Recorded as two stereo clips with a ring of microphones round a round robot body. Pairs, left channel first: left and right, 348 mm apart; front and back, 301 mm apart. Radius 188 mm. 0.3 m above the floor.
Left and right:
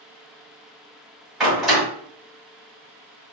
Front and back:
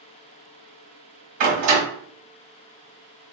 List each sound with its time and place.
1.4 s a door slam: straight behind, 1.6 m